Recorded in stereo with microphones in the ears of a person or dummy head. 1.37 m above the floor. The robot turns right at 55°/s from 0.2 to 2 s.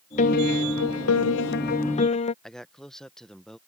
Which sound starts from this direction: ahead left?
A piano, at 0.2 s.